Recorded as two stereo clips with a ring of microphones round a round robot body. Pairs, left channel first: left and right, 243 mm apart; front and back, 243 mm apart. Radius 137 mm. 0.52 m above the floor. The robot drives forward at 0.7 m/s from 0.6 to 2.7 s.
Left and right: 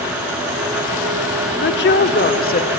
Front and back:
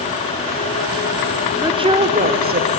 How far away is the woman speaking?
About 1.2 m.